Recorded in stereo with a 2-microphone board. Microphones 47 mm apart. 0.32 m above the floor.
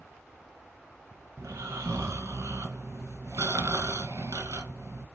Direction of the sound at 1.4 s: 80° right.